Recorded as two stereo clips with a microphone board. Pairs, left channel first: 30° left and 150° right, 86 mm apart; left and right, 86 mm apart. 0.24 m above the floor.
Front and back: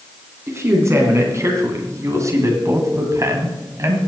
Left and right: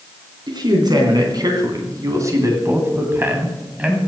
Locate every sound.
0.5 s a man speaking: 100° right, 3 m; by 4.0 s 160° right, 2.0 m